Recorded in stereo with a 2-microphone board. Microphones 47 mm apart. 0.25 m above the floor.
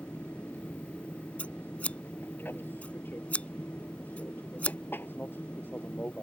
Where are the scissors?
30° left (ahead or behind).